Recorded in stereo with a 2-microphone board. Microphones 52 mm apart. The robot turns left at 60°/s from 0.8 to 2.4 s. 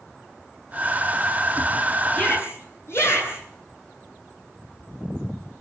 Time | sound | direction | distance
2.1 | a shout | 40° left (ahead or behind) | 9.5 m